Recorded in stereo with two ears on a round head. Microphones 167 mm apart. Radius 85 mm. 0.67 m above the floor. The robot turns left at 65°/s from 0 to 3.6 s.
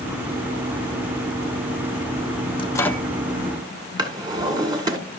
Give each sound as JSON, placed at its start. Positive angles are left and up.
{"t": 2.6, "sound": "a microwave", "side_deg": 25, "distance_m": 0.8}
{"t": 4.0, "sound": "a drawer", "side_deg": -20, "distance_m": 1.7}